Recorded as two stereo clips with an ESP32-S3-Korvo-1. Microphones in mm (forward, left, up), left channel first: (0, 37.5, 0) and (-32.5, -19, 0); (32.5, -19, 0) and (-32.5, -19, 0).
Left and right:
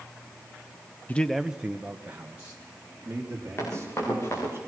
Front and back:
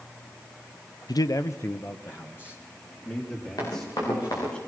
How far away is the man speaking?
About 0.5 m.